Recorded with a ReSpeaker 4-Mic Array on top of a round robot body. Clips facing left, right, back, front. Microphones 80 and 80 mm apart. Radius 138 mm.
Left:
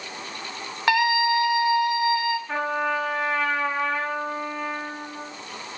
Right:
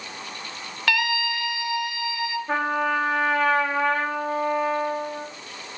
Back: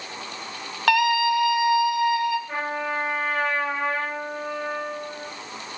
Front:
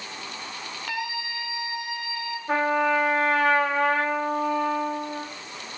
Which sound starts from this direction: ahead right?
A trumpet, at 2.5 s.